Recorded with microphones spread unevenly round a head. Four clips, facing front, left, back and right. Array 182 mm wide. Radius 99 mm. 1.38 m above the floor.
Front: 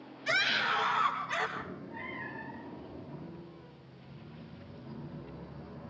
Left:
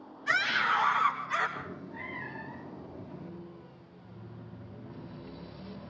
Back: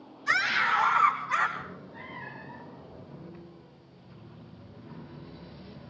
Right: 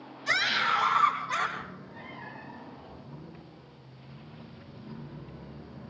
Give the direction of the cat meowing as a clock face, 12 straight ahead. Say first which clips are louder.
Left 1 dB, even; 11 o'clock.